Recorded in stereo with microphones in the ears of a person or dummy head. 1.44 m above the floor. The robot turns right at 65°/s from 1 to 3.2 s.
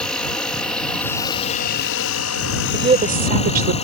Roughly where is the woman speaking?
Behind right.